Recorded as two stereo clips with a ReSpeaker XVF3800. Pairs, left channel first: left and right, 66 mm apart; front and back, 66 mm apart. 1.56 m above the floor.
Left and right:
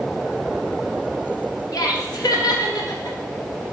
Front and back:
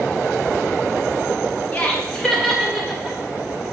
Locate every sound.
1.7 s laughter: 65° left, 1.5 m; by 3.2 s 95° left, 2 m